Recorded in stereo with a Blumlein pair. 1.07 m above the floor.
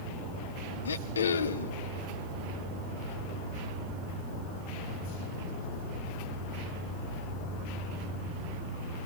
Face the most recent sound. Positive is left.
turn(degrees=70)